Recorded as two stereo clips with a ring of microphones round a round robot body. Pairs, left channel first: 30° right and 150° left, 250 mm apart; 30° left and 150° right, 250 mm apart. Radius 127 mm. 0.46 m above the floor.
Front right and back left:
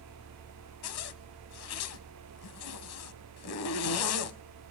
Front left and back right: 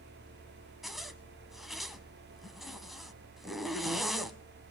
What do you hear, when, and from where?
0.8 s a zipper: 60° right, 1.0 m